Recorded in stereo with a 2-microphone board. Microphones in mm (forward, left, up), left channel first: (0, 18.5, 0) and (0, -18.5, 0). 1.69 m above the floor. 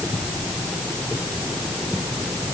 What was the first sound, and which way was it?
Only background noise.